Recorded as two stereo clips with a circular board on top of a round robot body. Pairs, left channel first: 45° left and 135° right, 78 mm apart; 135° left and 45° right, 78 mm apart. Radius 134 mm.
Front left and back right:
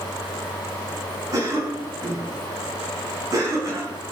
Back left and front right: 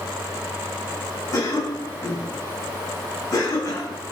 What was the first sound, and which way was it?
A cough, straight behind.